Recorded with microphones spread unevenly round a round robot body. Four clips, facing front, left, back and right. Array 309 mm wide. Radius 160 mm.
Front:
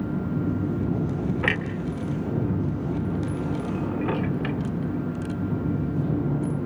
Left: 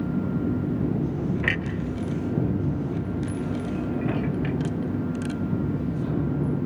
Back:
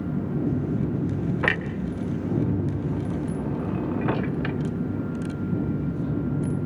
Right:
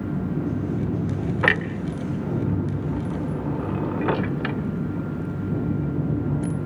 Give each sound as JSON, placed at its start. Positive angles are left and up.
{"t": 1.4, "sound": "a clunk", "azimuth_deg": -105, "distance_m": 1.7}